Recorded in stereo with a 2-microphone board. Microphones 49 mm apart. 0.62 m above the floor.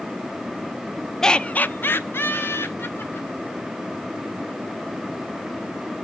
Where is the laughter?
10° left (ahead or behind), 0.6 m; by 3.6 s 50° left (ahead or behind), 2.5 m.